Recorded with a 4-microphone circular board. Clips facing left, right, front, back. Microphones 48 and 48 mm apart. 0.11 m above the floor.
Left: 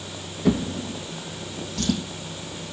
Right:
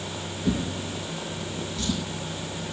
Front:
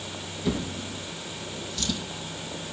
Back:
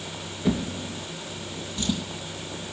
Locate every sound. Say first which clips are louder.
0.5 s a drawer: left 5 dB, back 3 dB; 110° left, 3 m